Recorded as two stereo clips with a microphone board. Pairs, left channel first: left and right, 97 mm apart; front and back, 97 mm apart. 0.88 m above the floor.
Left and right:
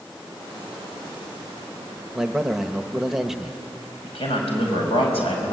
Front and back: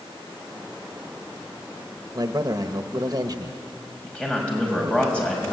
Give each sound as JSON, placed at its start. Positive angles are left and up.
{"t": 2.1, "sound": "a man speaking", "azimuth_deg": -175, "distance_m": 1.2}
{"t": 4.0, "sound": "a man speaking", "azimuth_deg": 80, "distance_m": 5.5}